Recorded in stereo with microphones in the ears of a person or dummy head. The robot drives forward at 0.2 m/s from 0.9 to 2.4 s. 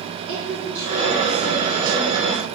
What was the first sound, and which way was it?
A woman speaking, 70° right (ahead or behind).